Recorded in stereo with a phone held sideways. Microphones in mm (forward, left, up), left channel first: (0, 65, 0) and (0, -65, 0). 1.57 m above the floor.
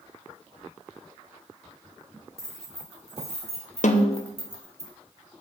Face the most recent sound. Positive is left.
turn(degrees=70)  # may be behind; listen again after turning